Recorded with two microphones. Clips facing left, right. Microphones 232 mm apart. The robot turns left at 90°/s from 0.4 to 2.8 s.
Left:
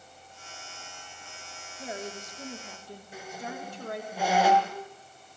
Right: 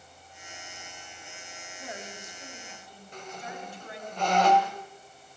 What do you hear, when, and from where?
1.8 s a woman speaking: 155° left, 4.5 m; by 4.1 s 65° left, 4.5 m
3.1 s a squeak: 10° left (ahead or behind), 2 m